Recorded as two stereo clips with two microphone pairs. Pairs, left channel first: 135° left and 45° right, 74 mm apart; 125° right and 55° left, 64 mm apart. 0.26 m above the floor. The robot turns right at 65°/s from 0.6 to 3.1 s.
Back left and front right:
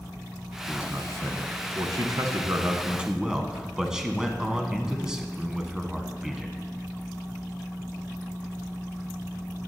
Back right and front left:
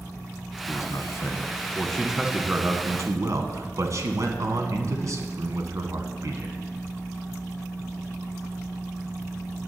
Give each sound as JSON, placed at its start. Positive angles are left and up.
{"t": 0.7, "sound": "a man speaking", "azimuth_deg": -125, "distance_m": 1.7}